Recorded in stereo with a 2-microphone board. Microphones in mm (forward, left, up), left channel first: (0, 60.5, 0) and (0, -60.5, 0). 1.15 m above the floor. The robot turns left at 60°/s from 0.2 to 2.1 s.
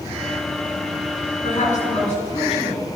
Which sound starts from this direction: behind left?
A woman speaking, at 1.4 s.